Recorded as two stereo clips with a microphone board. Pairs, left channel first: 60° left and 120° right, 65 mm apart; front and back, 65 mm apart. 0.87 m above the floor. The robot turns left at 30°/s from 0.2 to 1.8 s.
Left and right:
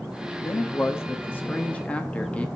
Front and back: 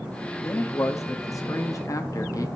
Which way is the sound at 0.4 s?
35° left.